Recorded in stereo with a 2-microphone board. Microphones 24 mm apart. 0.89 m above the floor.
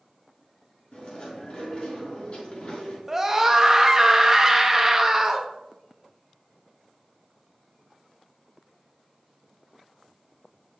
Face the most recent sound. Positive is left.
turn(degrees=-15)  # may be behind; listen again after turning